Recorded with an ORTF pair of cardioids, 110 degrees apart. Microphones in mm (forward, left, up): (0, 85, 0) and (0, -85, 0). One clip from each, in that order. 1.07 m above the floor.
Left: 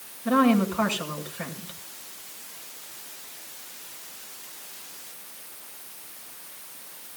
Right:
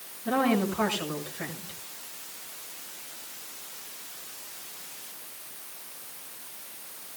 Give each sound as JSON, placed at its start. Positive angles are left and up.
{"t": 0.2, "sound": "a woman speaking", "azimuth_deg": 40, "distance_m": 6.0}